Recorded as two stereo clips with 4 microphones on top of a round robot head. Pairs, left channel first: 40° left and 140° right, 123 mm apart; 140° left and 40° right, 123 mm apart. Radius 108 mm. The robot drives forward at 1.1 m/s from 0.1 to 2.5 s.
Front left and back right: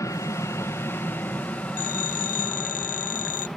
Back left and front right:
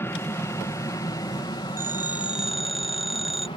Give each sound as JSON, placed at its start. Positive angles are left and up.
{"t": 0.0, "sound": "an aircraft", "azimuth_deg": 85}
{"t": 1.8, "sound": "a phone ringing", "azimuth_deg": 30}